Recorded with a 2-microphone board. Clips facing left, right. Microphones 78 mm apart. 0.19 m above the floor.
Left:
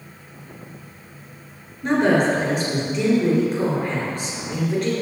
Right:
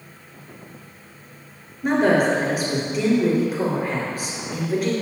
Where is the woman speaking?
5° right (ahead or behind), 3 m.